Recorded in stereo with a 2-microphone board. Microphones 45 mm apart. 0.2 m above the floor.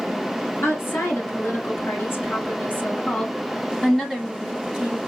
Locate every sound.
0.6 s a woman speaking: 55° left (ahead or behind), 2.5 m; by 5.0 s 15° right (ahead or behind), 1.2 m